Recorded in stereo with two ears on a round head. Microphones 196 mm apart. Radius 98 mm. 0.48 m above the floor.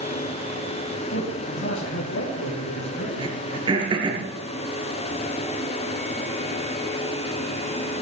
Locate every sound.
1.1 s a man speaking: 65° left (ahead or behind), 4 m; by 3.1 s 60° left (ahead or behind), 6.5 m
3.2 s throat clearing: 25° right (ahead or behind), 3.5 m